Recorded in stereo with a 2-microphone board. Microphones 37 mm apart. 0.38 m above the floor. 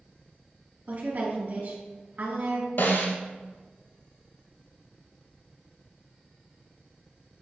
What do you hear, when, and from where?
0.9 s a woman speaking: 50° right (ahead or behind), 2.0 m
2.8 s a snare drum: 75° left (ahead or behind), 1.3 m